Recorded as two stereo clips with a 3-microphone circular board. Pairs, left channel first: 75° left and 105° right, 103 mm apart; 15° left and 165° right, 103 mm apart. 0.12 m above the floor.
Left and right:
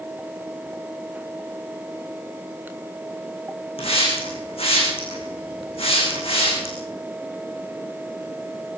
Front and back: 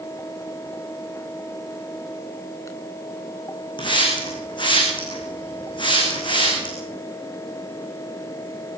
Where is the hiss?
55° left, 9 m.